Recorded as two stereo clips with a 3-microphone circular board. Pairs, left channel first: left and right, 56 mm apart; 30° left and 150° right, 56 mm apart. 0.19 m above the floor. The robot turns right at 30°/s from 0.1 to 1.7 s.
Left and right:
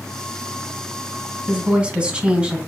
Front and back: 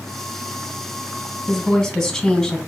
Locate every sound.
1.5 s a woman speaking: 50° right, 1.4 m; by 2.6 s 45° right, 1.4 m